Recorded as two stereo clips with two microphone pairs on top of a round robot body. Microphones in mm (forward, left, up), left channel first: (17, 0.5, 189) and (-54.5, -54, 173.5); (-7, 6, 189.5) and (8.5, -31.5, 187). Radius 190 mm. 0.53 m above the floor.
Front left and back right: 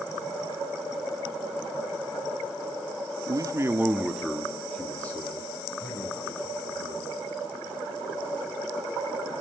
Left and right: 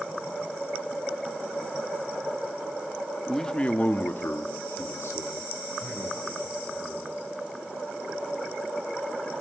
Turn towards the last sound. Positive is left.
turn(degrees=100)